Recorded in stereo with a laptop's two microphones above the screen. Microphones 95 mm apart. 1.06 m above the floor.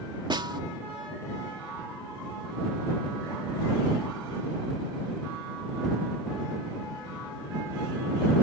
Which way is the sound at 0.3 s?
55° right (ahead or behind).